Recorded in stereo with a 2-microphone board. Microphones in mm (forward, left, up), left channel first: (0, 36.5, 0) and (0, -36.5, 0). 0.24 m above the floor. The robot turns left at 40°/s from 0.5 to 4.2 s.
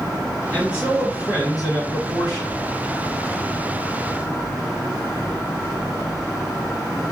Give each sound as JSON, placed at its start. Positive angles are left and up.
{"t": 0.5, "sound": "a man speaking", "azimuth_deg": 135, "distance_m": 1.8}